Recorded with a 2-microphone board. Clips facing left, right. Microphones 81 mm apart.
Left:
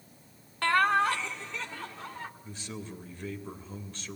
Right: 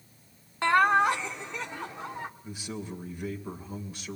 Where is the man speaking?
10° right (ahead or behind), 3 m.